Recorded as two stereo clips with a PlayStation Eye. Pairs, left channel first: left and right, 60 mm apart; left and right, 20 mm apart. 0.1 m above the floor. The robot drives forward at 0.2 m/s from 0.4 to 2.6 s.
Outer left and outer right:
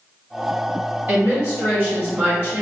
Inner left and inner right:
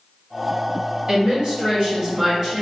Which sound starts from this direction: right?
A woman speaking, at 1.1 s.